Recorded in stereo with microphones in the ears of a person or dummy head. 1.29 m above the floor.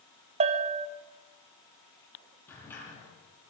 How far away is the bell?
About 1.1 m.